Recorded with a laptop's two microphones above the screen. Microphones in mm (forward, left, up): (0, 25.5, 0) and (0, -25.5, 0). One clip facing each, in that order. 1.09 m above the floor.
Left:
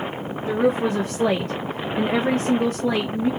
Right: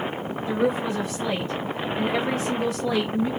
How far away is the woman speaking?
About 0.6 m.